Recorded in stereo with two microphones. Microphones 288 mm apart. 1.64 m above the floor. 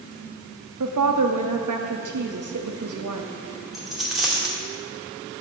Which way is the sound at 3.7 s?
Centre (ahead or behind).